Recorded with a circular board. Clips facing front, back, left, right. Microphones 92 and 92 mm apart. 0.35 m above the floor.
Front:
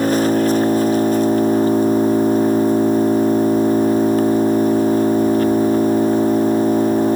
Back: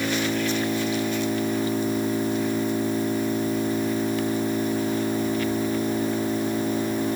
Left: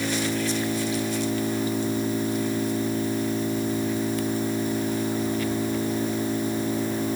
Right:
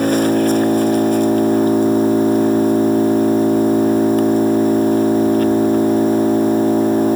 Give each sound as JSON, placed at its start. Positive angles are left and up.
{"t": 0.0, "sound": "an engine running", "azimuth_deg": -50}